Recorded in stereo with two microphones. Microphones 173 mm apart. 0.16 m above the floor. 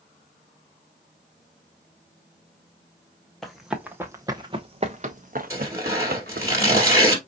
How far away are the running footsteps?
About 1.1 m.